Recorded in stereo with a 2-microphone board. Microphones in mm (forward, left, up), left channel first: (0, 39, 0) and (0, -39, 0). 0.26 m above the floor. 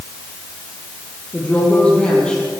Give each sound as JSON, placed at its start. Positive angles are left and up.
{"t": 1.3, "sound": "a woman speaking", "side_deg": 20, "distance_m": 6.5}